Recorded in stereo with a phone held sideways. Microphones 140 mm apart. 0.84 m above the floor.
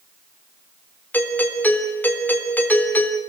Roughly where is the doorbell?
Centre.